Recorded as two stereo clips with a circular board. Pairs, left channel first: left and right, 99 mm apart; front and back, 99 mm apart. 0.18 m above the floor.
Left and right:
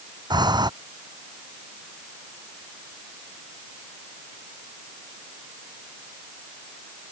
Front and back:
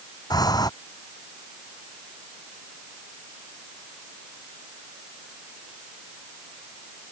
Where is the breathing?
50° right.